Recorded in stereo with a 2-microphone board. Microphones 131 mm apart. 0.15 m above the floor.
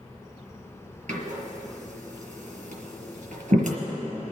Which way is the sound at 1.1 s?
65° right (ahead or behind).